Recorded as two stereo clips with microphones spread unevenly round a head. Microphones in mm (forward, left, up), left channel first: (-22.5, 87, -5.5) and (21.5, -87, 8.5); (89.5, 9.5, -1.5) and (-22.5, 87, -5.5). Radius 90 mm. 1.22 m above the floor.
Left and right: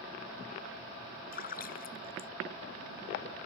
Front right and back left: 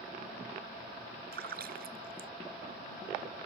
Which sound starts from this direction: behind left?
A splash, at 1.3 s.